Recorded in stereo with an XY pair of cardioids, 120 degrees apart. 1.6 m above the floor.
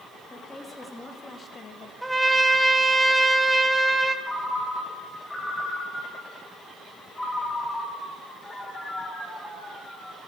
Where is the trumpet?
5° right, 1.3 m.